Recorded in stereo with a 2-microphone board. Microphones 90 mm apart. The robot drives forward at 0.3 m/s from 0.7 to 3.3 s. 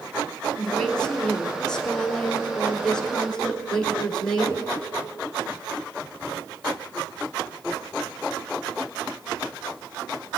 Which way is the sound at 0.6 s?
10° left (ahead or behind).